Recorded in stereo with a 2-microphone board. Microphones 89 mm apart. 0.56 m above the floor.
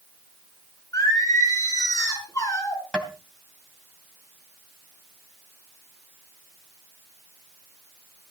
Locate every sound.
0.9 s singing: 40° left (ahead or behind), 6 m
2.9 s tapping: 10° left (ahead or behind), 3 m